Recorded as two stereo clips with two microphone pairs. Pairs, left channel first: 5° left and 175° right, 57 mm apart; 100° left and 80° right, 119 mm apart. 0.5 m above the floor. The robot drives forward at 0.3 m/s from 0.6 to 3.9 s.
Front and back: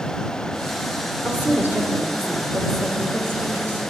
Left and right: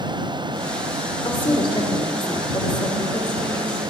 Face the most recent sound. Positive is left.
turn(degrees=150)